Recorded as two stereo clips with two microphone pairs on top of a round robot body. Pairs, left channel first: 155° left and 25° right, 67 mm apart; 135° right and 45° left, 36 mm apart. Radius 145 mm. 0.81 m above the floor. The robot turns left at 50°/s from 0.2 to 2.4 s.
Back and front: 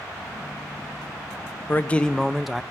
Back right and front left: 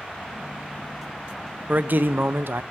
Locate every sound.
1.7 s a man speaking: 100° left, 0.6 m; by 2.6 s 65° left, 0.6 m